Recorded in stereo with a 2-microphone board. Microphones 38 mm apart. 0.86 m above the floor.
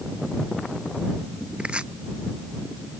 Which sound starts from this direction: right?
Chopping, at 1.6 s.